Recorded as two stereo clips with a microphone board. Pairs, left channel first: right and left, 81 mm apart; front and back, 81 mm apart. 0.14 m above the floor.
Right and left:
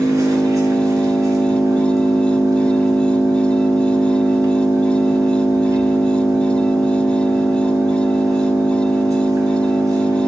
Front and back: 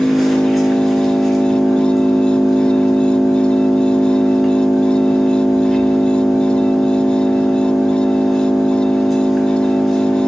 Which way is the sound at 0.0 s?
95° left.